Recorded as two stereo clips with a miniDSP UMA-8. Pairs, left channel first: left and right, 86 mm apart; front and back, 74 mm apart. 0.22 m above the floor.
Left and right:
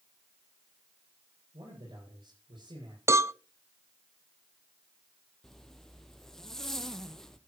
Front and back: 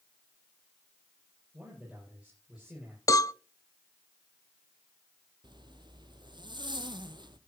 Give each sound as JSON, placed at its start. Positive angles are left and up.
{"t": 1.5, "sound": "a man speaking", "azimuth_deg": -105, "distance_m": 8.0}
{"t": 3.1, "sound": "a cowbell", "azimuth_deg": -35, "distance_m": 0.5}
{"t": 5.4, "sound": "a zipper", "azimuth_deg": 175, "distance_m": 1.3}